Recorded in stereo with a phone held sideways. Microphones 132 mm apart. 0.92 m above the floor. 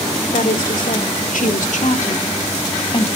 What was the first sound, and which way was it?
A woman speaking, 85° left.